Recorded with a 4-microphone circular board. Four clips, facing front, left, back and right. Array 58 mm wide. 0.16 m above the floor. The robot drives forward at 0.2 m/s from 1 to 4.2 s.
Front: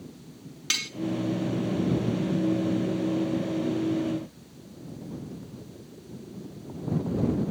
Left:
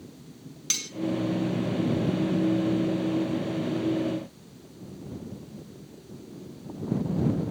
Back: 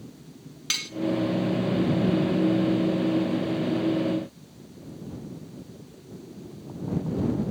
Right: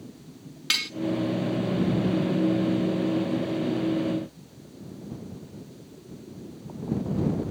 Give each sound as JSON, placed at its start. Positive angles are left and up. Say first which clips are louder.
{"t": 0.7, "sound": "cutlery clinking", "louder": "right 9 dB, front 1 dB", "azimuth_deg": -85, "distance_m": 0.8}